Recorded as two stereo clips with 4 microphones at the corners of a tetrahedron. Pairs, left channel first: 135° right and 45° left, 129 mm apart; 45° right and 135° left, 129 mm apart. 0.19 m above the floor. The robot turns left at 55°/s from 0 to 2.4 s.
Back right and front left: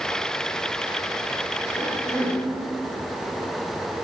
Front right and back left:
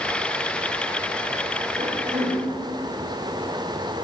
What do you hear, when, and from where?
1.8 s a cough: 165° left, 7.5 m; by 2.4 s 135° left, 7.5 m